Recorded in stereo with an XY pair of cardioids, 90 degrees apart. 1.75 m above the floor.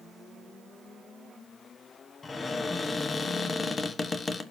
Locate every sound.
2.2 s a cupboard door: 40° left, 1.2 m